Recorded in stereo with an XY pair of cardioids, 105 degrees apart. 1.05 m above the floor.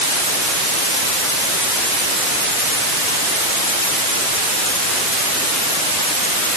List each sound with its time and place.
Only background noise.